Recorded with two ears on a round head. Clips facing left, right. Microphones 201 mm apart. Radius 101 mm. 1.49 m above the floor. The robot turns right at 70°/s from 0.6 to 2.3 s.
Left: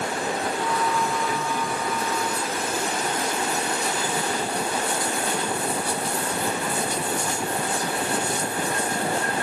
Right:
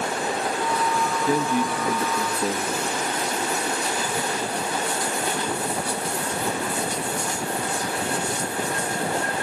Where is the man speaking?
150° right, 2.5 m; by 3.0 s 75° right, 2.5 m.